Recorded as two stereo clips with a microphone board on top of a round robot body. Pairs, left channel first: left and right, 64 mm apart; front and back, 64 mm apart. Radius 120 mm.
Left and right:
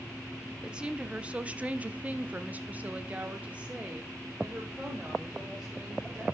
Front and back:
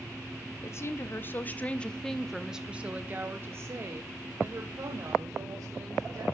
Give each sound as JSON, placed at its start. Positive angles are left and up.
{"t": 0.6, "sound": "a woman speaking", "azimuth_deg": -20, "distance_m": 1.4}